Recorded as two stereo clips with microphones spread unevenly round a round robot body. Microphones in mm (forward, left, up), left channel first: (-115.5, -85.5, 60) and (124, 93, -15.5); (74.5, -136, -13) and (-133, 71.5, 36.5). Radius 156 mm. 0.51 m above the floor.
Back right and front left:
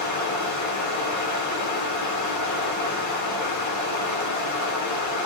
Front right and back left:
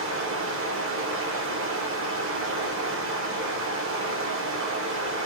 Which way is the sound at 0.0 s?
175° right.